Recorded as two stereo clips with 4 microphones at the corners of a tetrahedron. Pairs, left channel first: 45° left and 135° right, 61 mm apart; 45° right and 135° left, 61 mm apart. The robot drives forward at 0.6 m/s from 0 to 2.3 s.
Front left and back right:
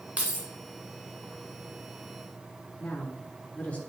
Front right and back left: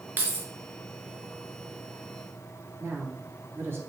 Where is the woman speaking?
105° left, 2 m.